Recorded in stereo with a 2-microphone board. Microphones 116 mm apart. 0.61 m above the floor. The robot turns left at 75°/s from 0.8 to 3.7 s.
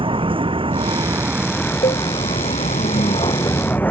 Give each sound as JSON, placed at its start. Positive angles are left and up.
{"t": 0.0, "sound": "a vehicle", "azimuth_deg": -125}
{"t": 1.8, "sound": "a cowbell", "side_deg": 65}